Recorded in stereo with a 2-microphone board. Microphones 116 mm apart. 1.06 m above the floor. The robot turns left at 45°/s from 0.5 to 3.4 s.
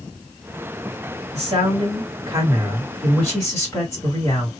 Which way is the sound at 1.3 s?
105° right.